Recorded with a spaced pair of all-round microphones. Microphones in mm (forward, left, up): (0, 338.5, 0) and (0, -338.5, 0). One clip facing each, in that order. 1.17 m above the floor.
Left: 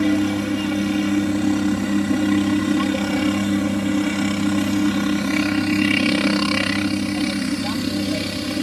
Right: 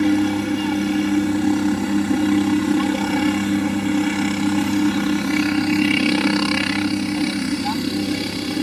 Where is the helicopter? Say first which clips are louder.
Right 1 dB; 10° left (ahead or behind).